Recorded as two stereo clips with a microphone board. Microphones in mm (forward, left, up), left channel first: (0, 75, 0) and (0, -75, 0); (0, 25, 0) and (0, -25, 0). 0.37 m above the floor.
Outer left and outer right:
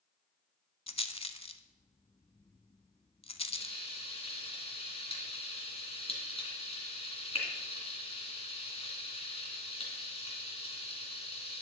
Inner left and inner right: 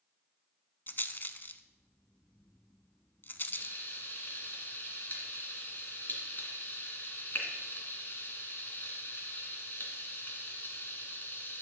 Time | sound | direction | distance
0.9 | a rattle | 40° left (ahead or behind) | 0.6 m
3.5 | frying | 40° left (ahead or behind) | 2.5 m